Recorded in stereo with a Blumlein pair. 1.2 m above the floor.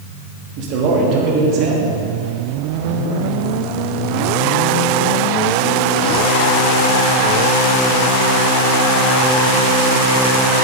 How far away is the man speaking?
About 2.5 m.